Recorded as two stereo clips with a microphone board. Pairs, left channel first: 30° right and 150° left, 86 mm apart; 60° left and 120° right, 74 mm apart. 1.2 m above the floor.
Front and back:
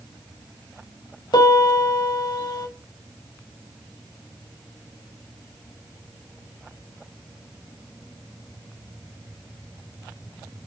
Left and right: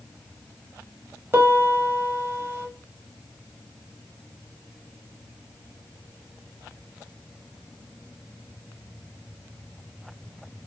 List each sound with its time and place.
1.3 s a piano: 60° right, 1.9 m